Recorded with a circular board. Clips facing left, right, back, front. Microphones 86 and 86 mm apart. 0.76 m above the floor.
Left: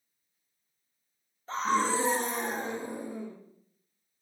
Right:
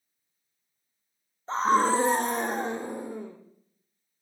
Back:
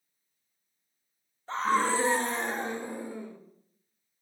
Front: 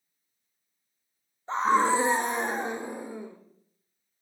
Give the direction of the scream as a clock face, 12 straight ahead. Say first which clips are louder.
Right 5 dB, front 4 dB; 2 o'clock.